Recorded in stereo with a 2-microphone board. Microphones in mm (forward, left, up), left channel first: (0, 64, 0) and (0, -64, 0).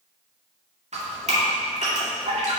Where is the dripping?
60° right (ahead or behind), 2.0 m.